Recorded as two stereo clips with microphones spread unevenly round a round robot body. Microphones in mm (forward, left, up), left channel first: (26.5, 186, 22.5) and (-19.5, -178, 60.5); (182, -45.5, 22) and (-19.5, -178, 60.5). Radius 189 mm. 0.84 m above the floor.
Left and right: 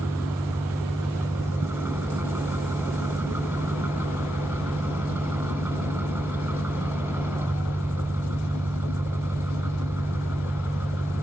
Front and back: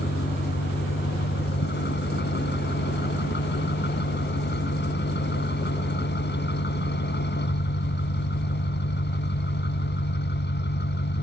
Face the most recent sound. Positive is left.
turn(degrees=-15)